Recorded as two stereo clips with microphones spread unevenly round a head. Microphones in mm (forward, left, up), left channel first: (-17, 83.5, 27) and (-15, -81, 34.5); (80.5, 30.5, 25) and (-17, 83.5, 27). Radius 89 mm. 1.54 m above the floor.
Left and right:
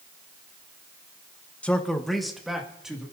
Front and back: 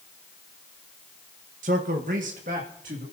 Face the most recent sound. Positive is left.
turn(degrees=-175)